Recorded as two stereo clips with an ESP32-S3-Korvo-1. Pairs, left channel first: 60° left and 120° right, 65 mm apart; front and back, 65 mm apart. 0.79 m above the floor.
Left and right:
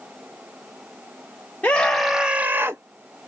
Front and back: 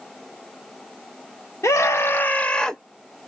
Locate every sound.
1.6 s a scream: straight ahead, 0.6 m; by 2.8 s 85° right, 0.8 m